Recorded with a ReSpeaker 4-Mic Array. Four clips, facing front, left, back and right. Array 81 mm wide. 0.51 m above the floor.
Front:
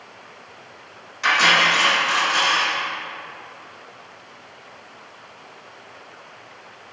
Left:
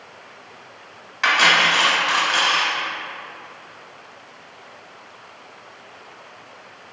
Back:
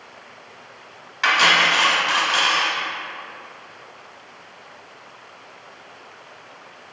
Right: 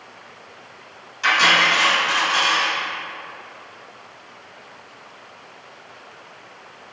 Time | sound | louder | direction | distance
1.2 | cutlery clinking | even, even | 130° left | 1.0 m